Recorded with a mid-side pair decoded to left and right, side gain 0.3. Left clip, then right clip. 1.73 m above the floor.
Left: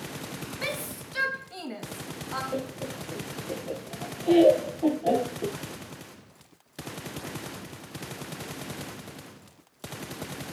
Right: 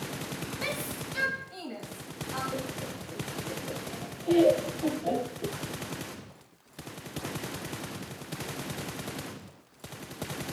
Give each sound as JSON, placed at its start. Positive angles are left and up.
{"t": 0.6, "sound": "a shout", "azimuth_deg": 40, "distance_m": 2.5}
{"t": 2.5, "sound": "laughter", "azimuth_deg": 60, "distance_m": 0.7}